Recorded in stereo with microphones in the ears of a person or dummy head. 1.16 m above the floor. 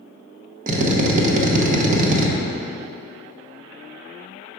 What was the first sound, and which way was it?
A drill, 45° right (ahead or behind).